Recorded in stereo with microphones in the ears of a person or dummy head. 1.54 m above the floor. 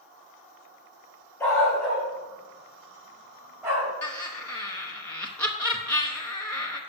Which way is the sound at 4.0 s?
10° left (ahead or behind).